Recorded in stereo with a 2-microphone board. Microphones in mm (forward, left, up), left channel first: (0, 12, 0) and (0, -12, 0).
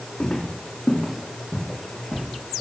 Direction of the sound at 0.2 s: 70° left (ahead or behind).